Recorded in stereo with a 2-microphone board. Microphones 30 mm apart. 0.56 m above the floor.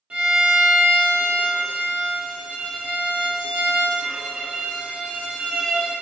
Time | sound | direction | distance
0.1 | a violin | 40° right (ahead or behind) | 0.6 m